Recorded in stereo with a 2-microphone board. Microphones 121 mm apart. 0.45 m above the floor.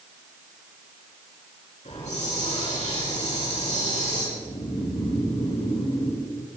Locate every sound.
1.9 s a hiss: 70° left (ahead or behind), 5 m
4.4 s snoring: 50° left (ahead or behind), 5 m